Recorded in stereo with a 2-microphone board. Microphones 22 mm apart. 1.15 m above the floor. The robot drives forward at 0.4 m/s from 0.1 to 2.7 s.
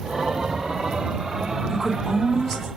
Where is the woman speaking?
5° left (ahead or behind), 1.7 m.